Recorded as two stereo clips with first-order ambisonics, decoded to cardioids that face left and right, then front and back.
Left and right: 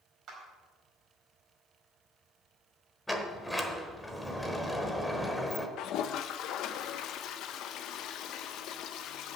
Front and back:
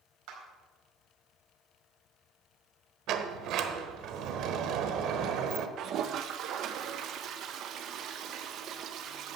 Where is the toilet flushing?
130° left, 0.7 m.